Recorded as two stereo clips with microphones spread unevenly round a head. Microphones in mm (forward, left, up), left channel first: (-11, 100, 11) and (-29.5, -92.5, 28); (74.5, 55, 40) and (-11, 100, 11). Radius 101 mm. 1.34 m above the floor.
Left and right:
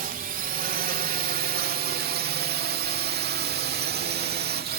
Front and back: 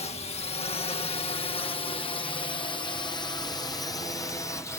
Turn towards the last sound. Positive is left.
turn(degrees=-105)